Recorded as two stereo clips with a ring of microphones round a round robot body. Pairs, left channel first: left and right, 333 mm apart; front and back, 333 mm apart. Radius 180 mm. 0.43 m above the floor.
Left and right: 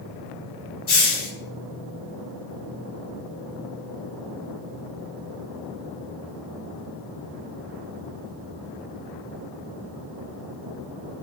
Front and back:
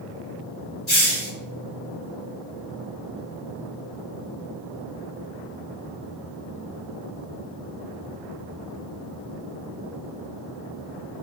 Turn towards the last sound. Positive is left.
turn(degrees=45)